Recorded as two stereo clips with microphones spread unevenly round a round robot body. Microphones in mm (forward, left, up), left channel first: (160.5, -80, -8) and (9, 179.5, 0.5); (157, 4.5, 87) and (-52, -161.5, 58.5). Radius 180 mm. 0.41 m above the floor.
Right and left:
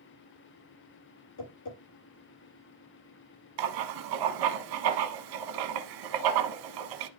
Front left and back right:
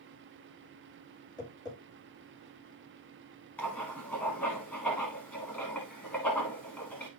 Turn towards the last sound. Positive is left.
turn(degrees=125)